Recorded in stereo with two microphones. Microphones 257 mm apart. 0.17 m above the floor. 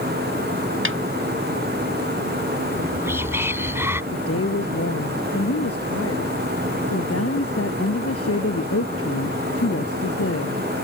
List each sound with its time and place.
0.8 s a snare drum: 50° right (ahead or behind)
2.7 s whispering: 10° right (ahead or behind)
4.1 s a woman speaking: 65° left (ahead or behind)